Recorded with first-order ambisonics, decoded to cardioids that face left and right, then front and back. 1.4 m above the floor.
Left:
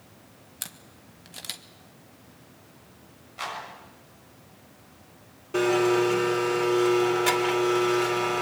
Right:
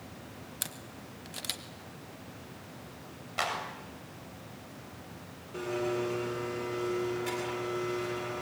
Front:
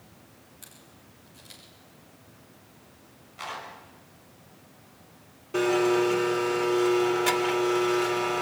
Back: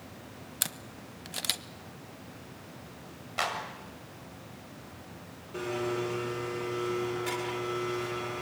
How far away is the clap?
About 7 m.